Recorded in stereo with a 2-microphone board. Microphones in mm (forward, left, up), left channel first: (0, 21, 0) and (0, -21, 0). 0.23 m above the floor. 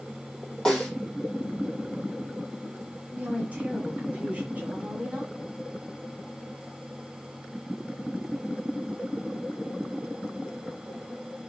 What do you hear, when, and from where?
0.7 s a snare drum: 20° left (ahead or behind), 3 m
3.1 s a woman speaking: 35° right (ahead or behind), 2.0 m